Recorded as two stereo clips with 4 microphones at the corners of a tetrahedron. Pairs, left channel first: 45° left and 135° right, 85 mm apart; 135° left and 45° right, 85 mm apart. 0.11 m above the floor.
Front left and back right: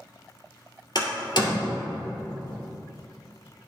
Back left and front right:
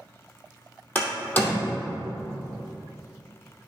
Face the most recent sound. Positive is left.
turn(degrees=70)